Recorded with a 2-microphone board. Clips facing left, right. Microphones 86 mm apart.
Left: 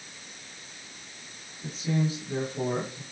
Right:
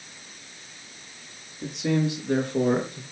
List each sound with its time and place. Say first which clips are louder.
1.6 s a man speaking: right 4 dB; 70° right (ahead or behind), 5.5 m; by 3.0 s 65° right (ahead or behind), 5 m